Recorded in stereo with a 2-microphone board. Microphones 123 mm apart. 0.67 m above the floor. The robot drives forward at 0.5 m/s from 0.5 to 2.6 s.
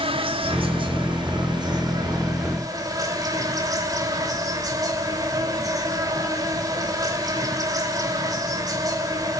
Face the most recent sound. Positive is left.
turn(degrees=-30)  # may be behind; listen again after turning